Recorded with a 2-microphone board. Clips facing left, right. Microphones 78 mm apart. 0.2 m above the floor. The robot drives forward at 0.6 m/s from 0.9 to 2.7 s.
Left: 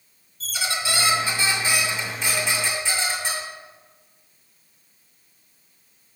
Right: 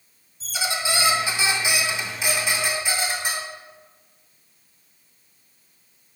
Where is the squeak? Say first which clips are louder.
Right 1 dB; 15° right (ahead or behind), 1.4 m; by 3.4 s 10° right (ahead or behind), 2.5 m.